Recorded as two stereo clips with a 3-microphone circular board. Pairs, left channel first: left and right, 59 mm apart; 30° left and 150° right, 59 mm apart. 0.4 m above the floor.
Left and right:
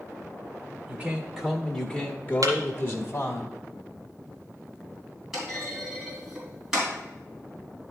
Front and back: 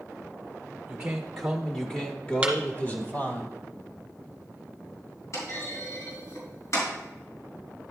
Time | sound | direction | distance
0.9 | a man speaking | 115° right | 0.9 m
2.4 | a thud | 75° right | 1.4 m
5.3 | a clunk | 5° right | 4 m